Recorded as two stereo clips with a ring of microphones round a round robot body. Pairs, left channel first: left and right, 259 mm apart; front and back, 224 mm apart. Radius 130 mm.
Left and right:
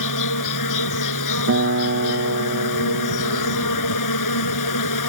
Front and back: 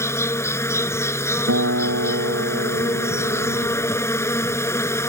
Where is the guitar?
135° right.